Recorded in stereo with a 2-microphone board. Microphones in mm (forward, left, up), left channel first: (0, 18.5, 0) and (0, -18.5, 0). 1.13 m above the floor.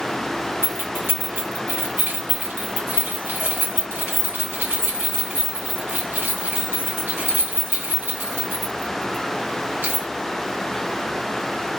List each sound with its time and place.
0.6 s keys jangling: 80° right, 1.4 m